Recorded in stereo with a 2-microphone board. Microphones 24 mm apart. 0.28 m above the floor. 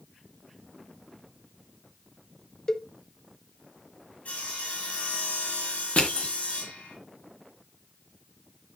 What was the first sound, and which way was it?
A cowbell, 25° left (ahead or behind).